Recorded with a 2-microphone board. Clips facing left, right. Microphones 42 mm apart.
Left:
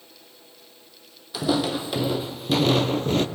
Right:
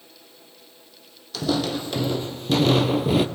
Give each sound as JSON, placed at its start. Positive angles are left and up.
{"t": 1.3, "sound": "footsteps", "side_deg": 15, "distance_m": 1.2}